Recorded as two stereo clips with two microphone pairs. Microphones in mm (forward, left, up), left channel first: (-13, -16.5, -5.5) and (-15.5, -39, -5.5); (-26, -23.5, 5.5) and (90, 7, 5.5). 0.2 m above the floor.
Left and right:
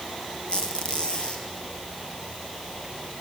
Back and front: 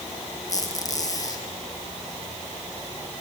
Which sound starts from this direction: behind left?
A squeak, at 0.5 s.